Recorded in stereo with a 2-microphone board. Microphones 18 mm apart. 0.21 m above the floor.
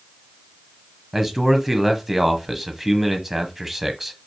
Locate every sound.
1.1 s a man speaking: 10° right (ahead or behind), 1.1 m